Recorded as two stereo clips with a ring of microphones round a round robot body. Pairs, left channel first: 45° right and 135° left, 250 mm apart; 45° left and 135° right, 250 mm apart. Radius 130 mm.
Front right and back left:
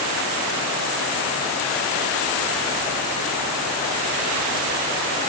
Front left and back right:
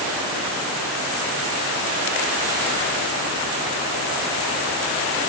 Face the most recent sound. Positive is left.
No sound to turn to.